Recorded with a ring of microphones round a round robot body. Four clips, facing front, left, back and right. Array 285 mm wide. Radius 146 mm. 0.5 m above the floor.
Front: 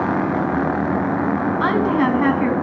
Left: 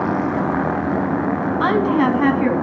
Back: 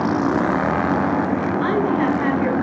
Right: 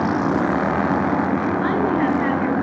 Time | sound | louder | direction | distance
1.6 | a woman speaking | left 6 dB, front 2 dB | 65° left | 5.5 m